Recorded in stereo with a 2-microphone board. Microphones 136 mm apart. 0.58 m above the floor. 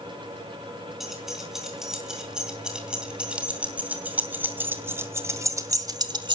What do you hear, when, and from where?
1.0 s keys jangling: centre (ahead or behind), 4 m; by 6.4 s 35° right (ahead or behind), 1.1 m